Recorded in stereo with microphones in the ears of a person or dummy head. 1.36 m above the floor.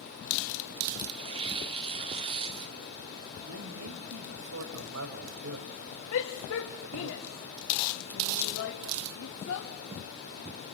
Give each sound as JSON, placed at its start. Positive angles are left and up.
{"t": 1.1, "sound": "tearing paper", "side_deg": -25, "distance_m": 1.5}
{"t": 3.4, "sound": "a man speaking", "side_deg": -80, "distance_m": 5.5}
{"t": 6.1, "sound": "a shout", "side_deg": 75, "distance_m": 3.0}